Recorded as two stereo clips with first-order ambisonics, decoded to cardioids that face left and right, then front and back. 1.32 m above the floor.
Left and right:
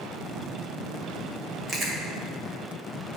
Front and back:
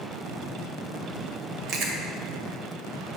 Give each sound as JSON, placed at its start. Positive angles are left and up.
{"t": 1.7, "sound": "chewing", "azimuth_deg": -150, "distance_m": 1.8}